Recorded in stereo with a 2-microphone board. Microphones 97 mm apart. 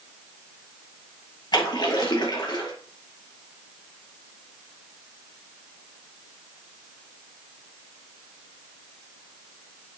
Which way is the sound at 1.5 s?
50° left (ahead or behind).